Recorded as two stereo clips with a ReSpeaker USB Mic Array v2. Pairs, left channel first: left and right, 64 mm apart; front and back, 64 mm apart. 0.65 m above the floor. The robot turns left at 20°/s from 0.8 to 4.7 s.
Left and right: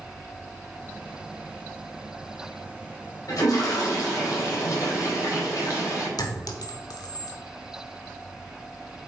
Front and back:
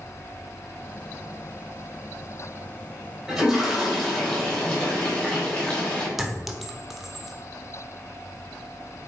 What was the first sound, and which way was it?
A toilet flushing, 95° left.